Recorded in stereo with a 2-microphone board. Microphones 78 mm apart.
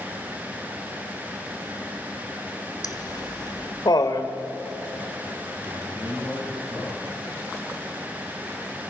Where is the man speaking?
45° right (ahead or behind), 9.5 m.